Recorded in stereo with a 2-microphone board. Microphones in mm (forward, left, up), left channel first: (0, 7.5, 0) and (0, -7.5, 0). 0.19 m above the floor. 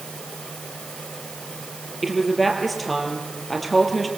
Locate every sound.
2.0 s a woman speaking: 10° left (ahead or behind), 4 m